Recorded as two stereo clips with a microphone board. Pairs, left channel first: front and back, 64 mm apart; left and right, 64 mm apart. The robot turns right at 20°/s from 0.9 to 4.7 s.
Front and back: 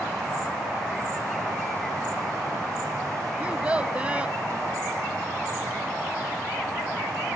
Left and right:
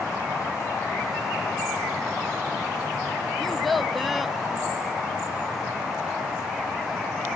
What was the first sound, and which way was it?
A child speaking, 170° left.